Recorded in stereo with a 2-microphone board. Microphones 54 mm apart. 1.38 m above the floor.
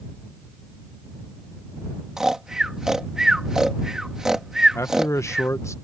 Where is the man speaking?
65° left (ahead or behind).